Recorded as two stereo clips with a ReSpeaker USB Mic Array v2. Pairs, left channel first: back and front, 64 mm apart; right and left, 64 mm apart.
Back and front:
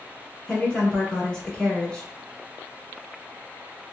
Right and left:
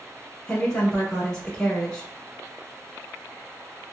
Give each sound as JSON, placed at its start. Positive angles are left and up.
{"t": 0.5, "sound": "a woman speaking", "azimuth_deg": -140, "distance_m": 1.2}